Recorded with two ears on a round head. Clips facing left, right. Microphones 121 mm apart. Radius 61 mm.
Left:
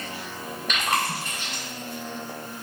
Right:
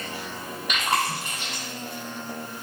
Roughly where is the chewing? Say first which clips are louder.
Right 1 dB; centre.